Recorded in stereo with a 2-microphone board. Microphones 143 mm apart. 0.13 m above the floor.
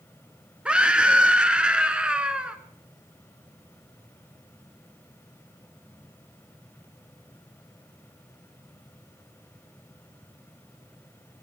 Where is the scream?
5° right (ahead or behind), 1.3 m.